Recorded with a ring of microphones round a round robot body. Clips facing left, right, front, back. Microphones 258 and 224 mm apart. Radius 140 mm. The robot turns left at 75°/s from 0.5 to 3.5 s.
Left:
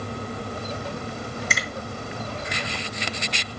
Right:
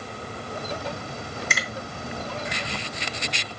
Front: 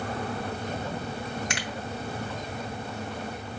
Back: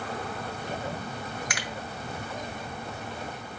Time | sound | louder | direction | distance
1.5 | a finger snap | left 2 dB, front 2 dB | 5° left | 0.9 m